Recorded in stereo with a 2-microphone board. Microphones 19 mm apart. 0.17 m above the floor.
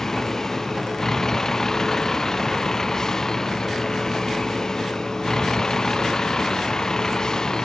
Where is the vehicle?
20° left (ahead or behind); by 7.6 s 35° left (ahead or behind).